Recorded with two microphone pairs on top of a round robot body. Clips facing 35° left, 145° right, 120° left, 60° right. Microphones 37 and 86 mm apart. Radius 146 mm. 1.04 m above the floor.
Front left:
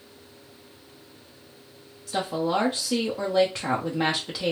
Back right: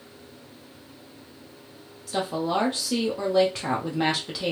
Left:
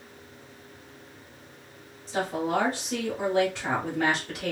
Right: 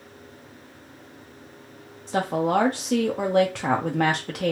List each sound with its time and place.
2.1 s a woman speaking: 50° right, 0.7 m